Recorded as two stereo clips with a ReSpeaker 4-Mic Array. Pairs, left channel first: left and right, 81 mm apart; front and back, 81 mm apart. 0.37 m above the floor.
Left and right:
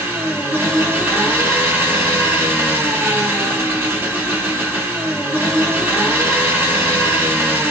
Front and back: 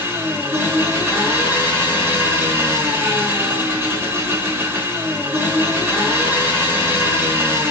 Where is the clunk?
No clunk in this recording.